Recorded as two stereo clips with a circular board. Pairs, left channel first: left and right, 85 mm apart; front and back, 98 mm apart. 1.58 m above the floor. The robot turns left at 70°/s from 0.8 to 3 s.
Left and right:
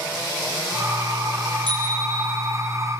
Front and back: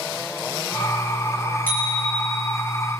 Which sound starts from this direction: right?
A bicycle bell, at 1.7 s.